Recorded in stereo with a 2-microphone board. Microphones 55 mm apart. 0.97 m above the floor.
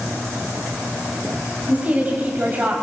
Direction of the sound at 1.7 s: 30° right (ahead or behind).